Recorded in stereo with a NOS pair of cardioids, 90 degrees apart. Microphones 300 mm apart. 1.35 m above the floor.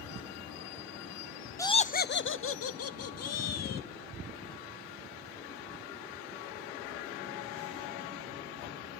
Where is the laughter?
10° left, 0.6 m; by 3.9 s 60° left, 2 m.